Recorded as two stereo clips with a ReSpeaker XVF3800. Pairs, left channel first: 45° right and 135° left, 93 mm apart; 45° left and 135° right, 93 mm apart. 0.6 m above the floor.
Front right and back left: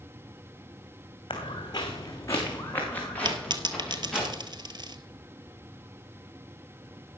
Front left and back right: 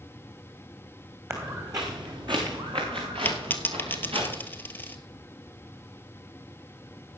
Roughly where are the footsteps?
Right.